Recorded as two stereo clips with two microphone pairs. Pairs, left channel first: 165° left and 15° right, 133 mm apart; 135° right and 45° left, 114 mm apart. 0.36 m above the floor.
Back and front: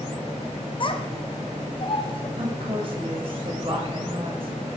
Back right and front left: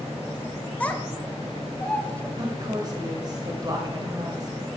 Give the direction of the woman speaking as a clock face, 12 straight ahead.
12 o'clock.